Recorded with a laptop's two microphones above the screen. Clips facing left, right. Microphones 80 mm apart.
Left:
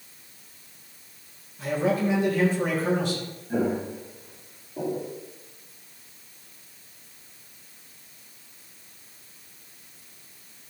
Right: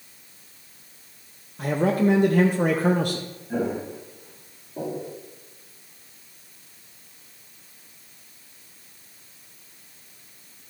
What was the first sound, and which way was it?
A man speaking, 55° right (ahead or behind).